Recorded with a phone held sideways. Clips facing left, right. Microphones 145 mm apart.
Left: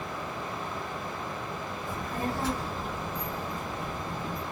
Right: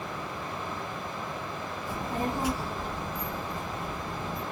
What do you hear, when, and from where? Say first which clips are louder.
1.9 s a child speaking: right 2 dB; 30° right (ahead or behind), 0.6 m; by 4.4 s 25° left (ahead or behind), 1.2 m